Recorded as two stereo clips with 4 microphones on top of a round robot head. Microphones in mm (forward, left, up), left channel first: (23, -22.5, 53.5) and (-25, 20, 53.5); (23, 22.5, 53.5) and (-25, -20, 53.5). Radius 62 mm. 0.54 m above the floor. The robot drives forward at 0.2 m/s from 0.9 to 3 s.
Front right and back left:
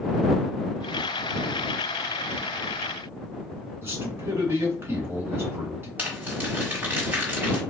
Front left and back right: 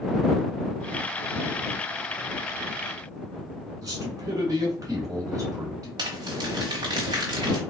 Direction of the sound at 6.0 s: 160° right.